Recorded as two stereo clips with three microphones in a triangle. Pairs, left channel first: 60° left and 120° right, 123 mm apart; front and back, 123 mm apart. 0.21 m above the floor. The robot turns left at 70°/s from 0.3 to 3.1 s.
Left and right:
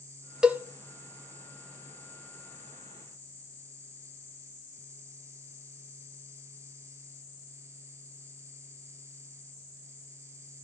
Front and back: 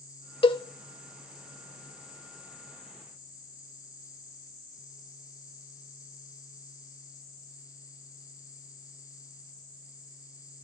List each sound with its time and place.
0.4 s a cowbell: 35° right, 0.6 m; by 0.6 s 50° right, 0.6 m